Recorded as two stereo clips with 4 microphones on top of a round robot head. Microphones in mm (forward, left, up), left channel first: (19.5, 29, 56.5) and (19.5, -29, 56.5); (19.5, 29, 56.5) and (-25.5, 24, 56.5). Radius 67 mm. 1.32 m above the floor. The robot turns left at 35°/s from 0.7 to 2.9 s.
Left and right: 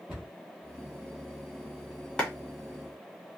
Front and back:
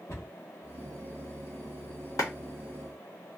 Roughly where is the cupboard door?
Ahead.